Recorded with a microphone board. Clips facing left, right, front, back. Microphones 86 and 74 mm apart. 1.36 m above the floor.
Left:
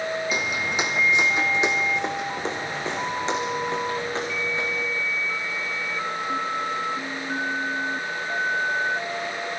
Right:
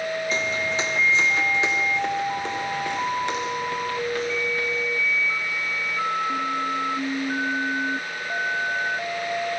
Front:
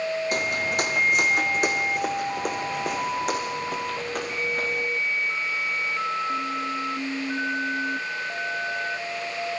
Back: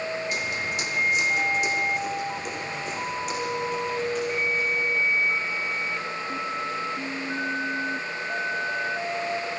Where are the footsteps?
15° left, 2.5 m; by 4.9 s 25° left, 4.5 m.